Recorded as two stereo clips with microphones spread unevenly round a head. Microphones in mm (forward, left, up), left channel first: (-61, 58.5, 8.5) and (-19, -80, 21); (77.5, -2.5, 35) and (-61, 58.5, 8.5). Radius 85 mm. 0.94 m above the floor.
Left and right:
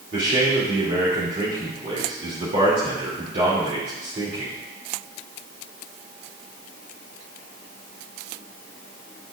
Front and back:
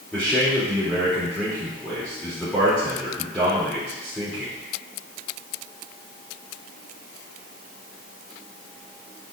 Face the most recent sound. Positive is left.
turn(degrees=-110)